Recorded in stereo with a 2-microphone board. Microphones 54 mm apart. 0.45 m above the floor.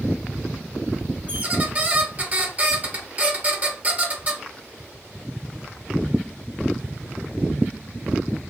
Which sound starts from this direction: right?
A squeak, at 1.3 s.